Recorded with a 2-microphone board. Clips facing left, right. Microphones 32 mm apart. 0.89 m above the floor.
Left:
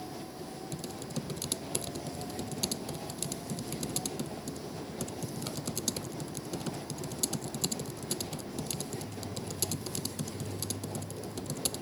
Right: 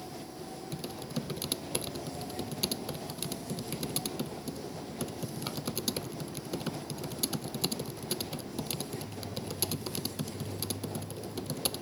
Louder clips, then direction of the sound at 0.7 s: Right 2 dB; 20° right (ahead or behind).